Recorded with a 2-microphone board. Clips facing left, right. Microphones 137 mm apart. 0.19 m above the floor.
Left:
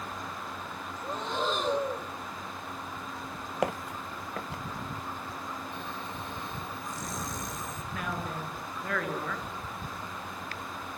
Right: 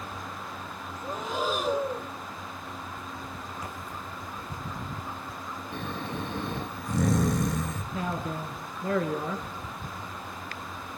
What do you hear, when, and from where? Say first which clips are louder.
1.0 s breathing: right 1 dB; 5° right (ahead or behind), 1.8 m
3.6 s footsteps: left 7 dB; 70° left (ahead or behind), 0.7 m; by 4.6 s 75° left (ahead or behind), 1.5 m
5.7 s snoring: right 5 dB; 70° right (ahead or behind), 2.0 m
7.9 s a man speaking: right 3 dB; 25° right (ahead or behind), 3.5 m